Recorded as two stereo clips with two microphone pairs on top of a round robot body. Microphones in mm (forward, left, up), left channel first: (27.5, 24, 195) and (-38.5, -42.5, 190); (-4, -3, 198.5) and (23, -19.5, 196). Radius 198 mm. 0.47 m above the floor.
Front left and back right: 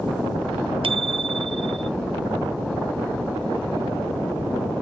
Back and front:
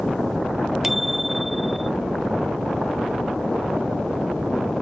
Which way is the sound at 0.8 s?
115° right.